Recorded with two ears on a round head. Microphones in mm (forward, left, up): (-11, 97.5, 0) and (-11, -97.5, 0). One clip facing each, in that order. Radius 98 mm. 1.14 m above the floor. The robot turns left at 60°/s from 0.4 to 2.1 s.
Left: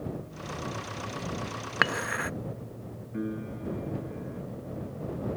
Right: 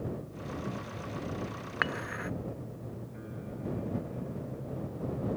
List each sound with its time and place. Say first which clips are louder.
1.8 s dishes clattering: left 4 dB; 55° left (ahead or behind); by 2.3 s 65° left (ahead or behind)
3.1 s a piano: left 8 dB; 70° left (ahead or behind)